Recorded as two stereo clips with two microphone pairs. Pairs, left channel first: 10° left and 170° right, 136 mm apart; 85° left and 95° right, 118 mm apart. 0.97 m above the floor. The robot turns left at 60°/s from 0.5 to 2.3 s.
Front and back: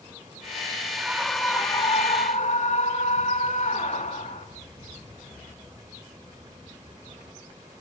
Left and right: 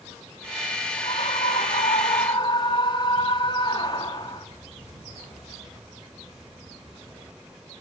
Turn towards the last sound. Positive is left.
turn(degrees=40)